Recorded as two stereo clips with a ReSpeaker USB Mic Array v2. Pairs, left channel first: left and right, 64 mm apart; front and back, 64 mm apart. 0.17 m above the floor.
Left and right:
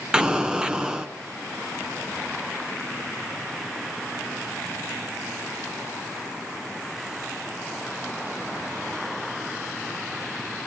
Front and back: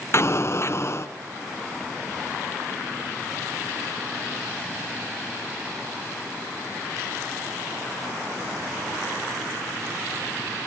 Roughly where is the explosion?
Ahead.